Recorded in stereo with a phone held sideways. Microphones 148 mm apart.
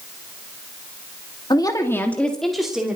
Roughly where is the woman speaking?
Left.